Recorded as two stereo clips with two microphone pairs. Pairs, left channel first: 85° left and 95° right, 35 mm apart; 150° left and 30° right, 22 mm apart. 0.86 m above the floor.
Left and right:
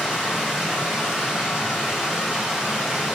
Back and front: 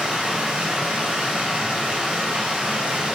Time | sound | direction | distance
0.0 | running water | 15° right | 3 m